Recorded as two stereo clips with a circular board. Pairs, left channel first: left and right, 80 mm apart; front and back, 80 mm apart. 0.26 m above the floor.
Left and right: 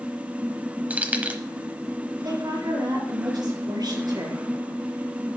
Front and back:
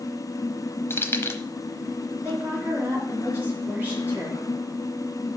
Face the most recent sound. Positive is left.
turn(degrees=-115)